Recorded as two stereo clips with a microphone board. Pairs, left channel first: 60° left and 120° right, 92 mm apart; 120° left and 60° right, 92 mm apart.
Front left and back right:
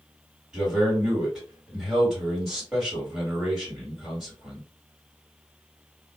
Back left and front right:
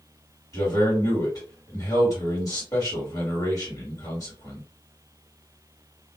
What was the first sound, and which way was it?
A man speaking, 155° left.